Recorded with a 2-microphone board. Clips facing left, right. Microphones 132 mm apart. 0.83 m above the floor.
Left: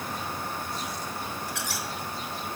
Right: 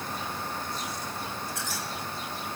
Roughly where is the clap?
I don't hear a clap.